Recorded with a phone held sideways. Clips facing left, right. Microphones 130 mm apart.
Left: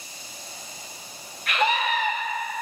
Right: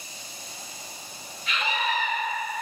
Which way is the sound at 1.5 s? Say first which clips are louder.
Left 5 dB; 65° left (ahead or behind).